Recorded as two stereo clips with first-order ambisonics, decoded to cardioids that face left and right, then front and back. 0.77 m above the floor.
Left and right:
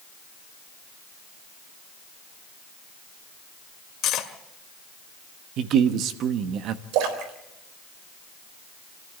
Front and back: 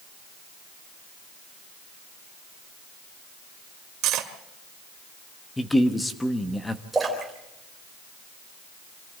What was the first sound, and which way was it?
Cutlery clinking, 140° left.